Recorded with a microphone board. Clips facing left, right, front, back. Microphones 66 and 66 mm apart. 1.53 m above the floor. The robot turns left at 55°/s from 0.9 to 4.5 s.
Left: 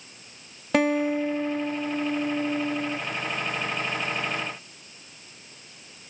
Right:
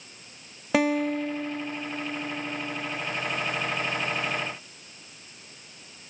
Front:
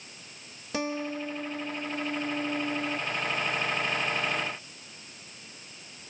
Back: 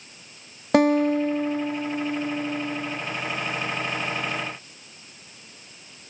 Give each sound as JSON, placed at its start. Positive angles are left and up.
{"t": 0.7, "sound": "a guitar", "azimuth_deg": -175, "distance_m": 0.6}